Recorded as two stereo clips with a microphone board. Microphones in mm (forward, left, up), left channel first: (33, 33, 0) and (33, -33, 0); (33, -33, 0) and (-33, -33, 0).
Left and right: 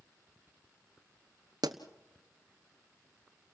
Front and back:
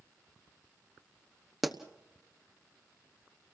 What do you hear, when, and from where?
1.6 s a pop: 90° right, 1.0 m